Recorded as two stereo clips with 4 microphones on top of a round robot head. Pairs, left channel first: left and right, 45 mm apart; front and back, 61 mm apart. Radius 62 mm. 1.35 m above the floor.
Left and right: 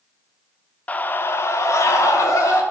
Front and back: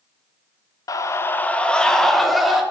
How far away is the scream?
About 1.2 m.